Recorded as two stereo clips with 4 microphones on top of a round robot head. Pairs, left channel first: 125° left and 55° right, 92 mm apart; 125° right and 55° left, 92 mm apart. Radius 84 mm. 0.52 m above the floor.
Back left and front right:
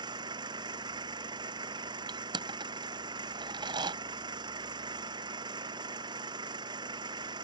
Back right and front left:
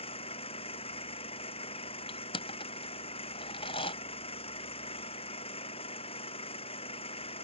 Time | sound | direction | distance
0.0 | an engine running | 100° right | ?
2.1 | crushing | 95° right | ?